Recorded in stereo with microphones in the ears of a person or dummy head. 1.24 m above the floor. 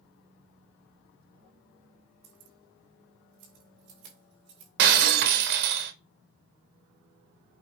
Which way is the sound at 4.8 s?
65° right (ahead or behind).